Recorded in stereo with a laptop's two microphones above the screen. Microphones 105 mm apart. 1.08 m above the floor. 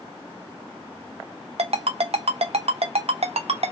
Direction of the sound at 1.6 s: 75° right (ahead or behind).